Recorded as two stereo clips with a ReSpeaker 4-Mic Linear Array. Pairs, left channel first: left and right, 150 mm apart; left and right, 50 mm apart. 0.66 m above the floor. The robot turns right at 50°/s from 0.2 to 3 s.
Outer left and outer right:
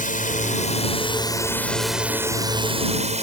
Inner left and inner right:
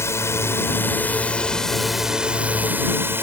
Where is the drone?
95° left; by 3.2 s 125° right.